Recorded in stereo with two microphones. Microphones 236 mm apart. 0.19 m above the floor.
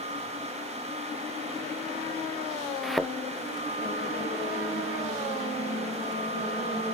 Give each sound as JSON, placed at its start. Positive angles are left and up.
{"t": 2.8, "sound": "a thud", "side_deg": 0}